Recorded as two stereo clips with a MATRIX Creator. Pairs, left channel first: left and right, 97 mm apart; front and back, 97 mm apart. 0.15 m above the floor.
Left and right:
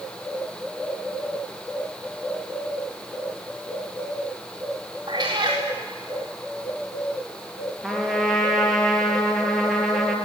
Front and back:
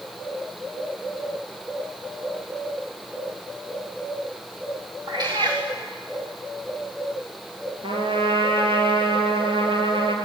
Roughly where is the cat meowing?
Behind right.